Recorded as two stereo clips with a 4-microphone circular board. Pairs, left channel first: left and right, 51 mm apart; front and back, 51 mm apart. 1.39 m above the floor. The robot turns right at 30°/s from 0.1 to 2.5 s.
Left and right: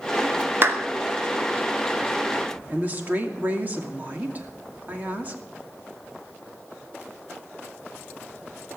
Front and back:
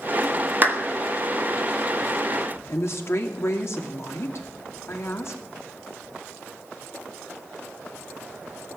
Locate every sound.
0.6 s a clap: 130° right, 2.5 m; by 0.8 s 125° right, 2.5 m
2.7 s a woman speaking: 35° right, 2.5 m